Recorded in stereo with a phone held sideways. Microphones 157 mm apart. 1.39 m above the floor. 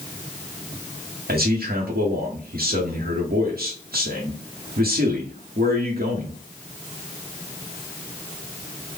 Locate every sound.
1.3 s a man speaking: 75° right (ahead or behind), 0.9 m